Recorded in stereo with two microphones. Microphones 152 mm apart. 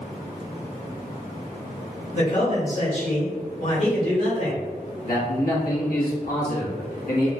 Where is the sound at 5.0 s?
65° left (ahead or behind), 1.4 m.